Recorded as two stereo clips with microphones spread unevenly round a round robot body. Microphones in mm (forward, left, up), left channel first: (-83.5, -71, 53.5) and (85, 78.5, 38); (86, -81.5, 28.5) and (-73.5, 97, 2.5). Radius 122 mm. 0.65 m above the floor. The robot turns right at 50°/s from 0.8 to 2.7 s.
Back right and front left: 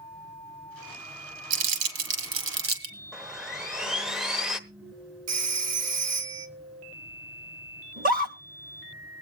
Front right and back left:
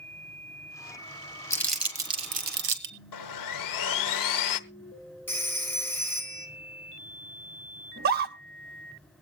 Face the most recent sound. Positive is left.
turn(degrees=90)